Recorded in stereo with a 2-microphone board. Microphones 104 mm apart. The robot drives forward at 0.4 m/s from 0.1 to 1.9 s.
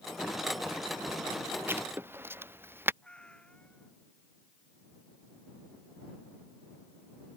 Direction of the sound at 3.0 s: 10° left (ahead or behind).